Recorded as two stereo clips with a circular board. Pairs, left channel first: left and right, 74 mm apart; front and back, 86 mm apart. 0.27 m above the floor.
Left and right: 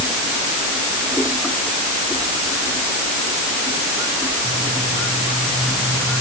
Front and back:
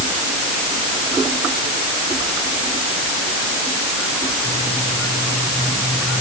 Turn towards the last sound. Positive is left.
No sound to turn to.